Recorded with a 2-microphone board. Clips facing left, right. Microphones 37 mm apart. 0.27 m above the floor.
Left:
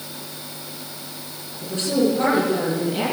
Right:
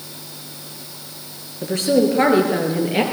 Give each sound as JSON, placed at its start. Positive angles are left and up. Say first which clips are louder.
{"t": 1.6, "sound": "a woman speaking", "louder": "right 4 dB", "side_deg": -75, "distance_m": 6.0}